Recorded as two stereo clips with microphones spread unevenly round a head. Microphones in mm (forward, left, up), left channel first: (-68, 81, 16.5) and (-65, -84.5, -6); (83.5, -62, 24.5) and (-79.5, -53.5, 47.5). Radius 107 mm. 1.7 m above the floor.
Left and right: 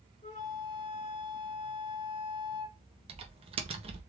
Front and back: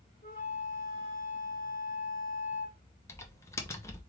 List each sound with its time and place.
0.2 s a flute: 60° left, 1.8 m
3.1 s typing on a keyboard: 70° right, 0.8 m